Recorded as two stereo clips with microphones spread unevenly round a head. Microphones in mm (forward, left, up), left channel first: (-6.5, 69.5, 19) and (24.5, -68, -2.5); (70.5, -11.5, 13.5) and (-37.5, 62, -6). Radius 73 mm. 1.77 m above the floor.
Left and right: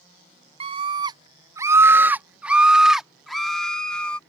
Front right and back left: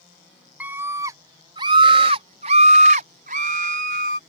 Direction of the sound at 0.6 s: 130° right.